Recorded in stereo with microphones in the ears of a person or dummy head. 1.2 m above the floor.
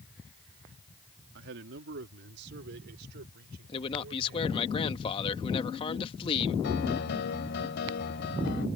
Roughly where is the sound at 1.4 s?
Right.